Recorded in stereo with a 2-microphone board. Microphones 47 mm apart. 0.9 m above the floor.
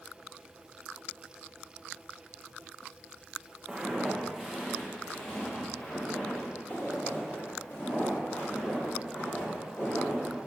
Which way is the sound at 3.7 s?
15° right (ahead or behind).